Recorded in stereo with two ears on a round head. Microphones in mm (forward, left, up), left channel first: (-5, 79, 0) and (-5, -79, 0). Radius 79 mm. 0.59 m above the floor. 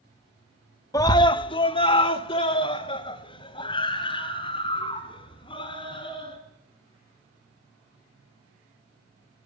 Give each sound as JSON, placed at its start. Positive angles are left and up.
{"t": 0.9, "sound": "a scream", "side_deg": 20, "distance_m": 0.6}